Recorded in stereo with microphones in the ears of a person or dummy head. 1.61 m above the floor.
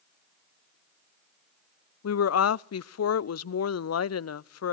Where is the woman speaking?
85° left, 0.5 m.